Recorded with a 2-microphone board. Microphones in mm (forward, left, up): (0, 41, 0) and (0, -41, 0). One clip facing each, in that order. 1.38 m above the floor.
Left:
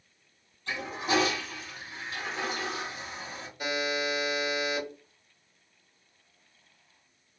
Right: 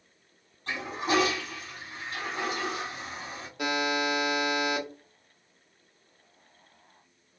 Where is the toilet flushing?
45° right (ahead or behind), 1.9 m.